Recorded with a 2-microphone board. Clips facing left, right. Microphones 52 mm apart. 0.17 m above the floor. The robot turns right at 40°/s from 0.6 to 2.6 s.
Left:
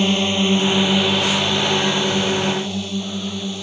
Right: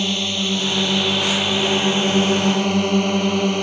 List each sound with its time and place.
0.0 s a drone: 20° left (ahead or behind); by 3.6 s 50° right (ahead or behind)